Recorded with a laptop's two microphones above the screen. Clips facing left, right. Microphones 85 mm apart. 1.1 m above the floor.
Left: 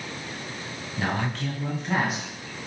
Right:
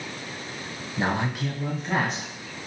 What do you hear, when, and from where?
1.0 s a man speaking: 25° right (ahead or behind), 0.5 m; by 2.3 s 5° left (ahead or behind), 1.0 m